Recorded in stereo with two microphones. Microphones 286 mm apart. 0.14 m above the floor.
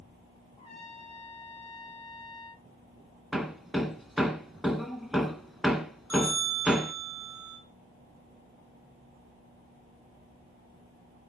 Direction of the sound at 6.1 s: 65° right (ahead or behind).